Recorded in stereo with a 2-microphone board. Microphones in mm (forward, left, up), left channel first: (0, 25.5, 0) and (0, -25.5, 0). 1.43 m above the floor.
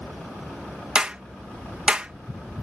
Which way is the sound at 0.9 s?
20° right (ahead or behind).